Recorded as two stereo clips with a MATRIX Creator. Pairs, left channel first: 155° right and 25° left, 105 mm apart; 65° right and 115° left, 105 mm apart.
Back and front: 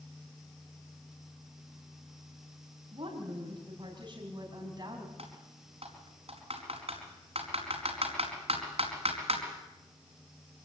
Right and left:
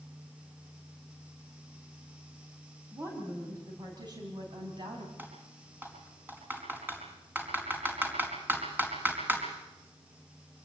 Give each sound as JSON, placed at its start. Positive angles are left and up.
{"t": 2.9, "sound": "a woman speaking", "azimuth_deg": 55, "distance_m": 4.5}
{"t": 5.2, "sound": "typing on a keyboard", "azimuth_deg": 40, "distance_m": 4.5}